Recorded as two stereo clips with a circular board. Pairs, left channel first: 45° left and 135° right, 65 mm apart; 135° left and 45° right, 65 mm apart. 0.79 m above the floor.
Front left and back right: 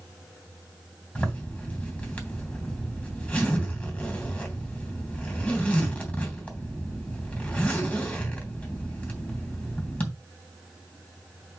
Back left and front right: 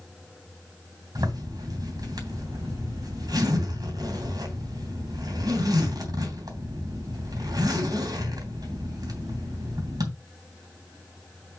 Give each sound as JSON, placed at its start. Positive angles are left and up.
{"t": 1.1, "sound": "a zipper", "azimuth_deg": -25, "distance_m": 3.0}